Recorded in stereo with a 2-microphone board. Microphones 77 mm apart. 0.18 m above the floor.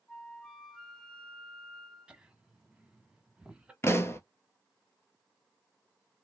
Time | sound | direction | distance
0.1 | a flute | 10° left (ahead or behind) | 1.4 m
2.1 | laughter | 10° right (ahead or behind) | 1.0 m
3.8 | a pop | 35° left (ahead or behind) | 0.7 m